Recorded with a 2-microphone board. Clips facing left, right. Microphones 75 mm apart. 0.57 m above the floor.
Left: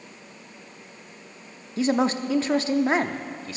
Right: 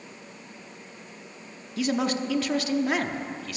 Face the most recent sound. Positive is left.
turn(degrees=30)  # may be behind; listen again after turning